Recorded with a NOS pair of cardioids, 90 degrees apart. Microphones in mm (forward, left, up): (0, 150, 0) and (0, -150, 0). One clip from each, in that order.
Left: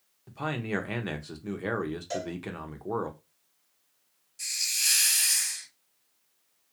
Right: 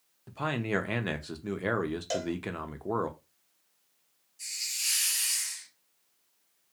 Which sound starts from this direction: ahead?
A man speaking, at 0.3 s.